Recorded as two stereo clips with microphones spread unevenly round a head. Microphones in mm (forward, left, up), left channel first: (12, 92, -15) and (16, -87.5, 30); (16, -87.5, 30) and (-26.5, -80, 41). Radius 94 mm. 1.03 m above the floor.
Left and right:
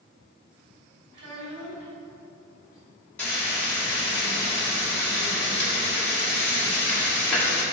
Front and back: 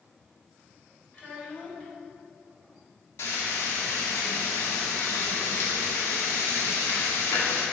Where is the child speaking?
75° right, 3 m.